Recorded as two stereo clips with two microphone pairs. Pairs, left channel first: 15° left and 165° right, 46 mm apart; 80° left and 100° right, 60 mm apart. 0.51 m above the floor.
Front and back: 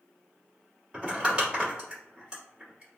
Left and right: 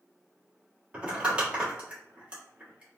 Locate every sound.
0.9 s crumpling: 125° right, 1.4 m